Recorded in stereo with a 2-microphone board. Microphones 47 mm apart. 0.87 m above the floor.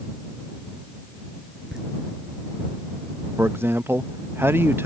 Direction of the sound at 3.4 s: 55° right (ahead or behind).